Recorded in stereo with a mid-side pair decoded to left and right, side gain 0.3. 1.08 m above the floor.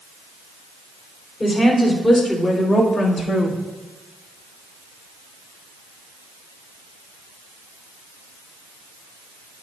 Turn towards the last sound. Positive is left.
turn(degrees=70)